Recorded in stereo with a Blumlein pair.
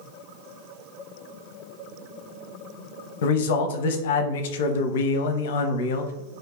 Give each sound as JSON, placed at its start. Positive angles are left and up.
{"t": 3.2, "sound": "a man speaking", "azimuth_deg": 55, "distance_m": 0.5}